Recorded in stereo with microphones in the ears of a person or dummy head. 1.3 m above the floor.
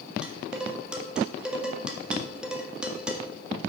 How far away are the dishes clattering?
About 1.7 m.